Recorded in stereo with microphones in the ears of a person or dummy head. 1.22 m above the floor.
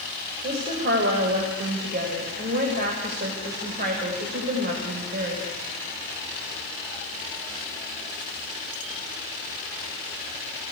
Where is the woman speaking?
45° right (ahead or behind), 5.5 m.